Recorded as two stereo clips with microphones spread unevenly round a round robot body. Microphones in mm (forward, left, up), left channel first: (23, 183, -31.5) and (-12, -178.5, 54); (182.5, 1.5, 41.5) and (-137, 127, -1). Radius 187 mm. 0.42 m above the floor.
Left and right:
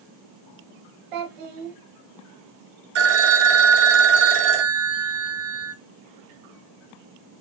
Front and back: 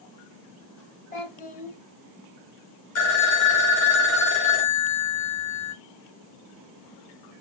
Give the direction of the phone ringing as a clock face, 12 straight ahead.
2 o'clock.